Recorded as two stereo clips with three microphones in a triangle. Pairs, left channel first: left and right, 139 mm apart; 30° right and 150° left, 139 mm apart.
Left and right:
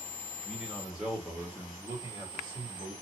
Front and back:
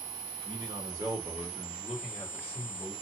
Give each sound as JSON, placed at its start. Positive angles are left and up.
{"t": 0.5, "sound": "a man speaking", "azimuth_deg": 175, "distance_m": 1.5}